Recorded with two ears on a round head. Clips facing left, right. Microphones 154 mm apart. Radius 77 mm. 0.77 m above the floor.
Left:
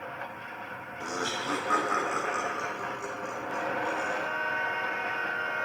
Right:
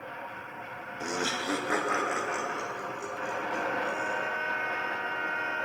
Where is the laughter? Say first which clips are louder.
Right 1 dB; 20° right (ahead or behind), 0.7 m; by 4.2 s 10° right (ahead or behind), 2.5 m.